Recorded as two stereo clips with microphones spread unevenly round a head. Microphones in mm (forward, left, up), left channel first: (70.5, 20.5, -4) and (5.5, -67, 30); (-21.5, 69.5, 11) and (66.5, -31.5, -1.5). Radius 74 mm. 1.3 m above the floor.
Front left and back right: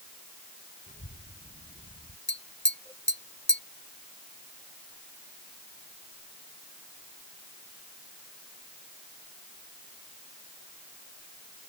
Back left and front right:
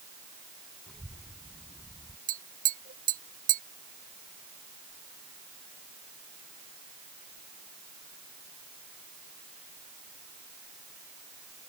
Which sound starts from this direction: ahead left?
A child speaking, at 0.9 s.